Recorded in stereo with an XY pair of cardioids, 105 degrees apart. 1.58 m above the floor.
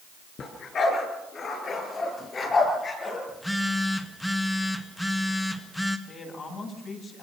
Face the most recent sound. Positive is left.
turn(degrees=40)